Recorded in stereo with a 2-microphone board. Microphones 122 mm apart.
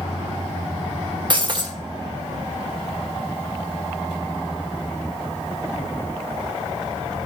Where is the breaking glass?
40° right (ahead or behind), 1.0 m.